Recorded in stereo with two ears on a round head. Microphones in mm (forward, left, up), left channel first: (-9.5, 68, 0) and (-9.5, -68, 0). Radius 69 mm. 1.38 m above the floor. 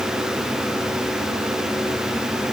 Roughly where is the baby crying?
I don't hear a baby crying.